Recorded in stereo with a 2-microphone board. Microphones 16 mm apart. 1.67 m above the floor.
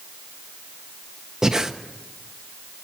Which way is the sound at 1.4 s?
35° right (ahead or behind).